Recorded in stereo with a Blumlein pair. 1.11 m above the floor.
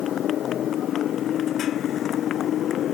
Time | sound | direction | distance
0.0 | a motorcycle | 30° left | ?